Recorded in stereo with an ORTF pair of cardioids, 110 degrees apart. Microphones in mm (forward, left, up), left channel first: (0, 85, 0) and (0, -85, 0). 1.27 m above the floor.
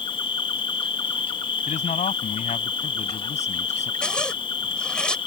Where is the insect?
30° left.